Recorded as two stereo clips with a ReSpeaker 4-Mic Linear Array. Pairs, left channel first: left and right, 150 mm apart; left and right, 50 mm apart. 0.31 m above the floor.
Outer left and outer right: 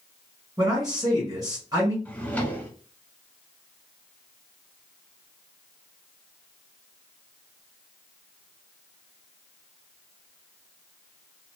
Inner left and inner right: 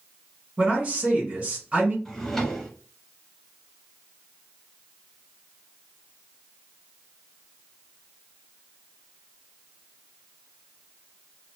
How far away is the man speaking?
About 1.7 m.